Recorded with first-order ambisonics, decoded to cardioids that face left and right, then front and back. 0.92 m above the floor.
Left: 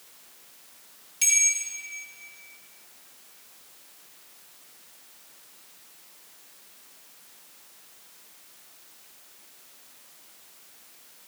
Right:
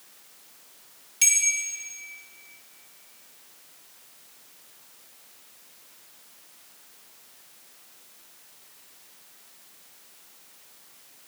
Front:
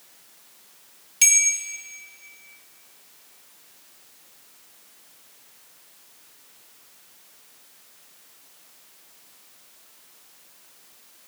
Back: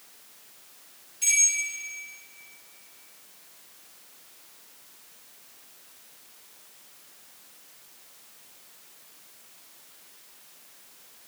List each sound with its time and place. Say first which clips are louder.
1.2 s a bell: even, front 4 dB; 15° right, 1.9 m